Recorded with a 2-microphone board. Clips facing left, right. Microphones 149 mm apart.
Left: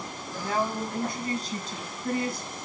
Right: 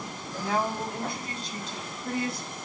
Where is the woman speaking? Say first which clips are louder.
Even; 40° left (ahead or behind), 5.5 m; by 2.5 s 55° left (ahead or behind), 5.5 m.